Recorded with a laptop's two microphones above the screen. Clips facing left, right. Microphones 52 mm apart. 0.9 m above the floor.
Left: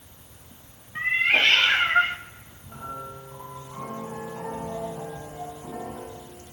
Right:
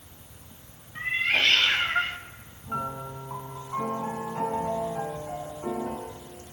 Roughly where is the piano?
Right.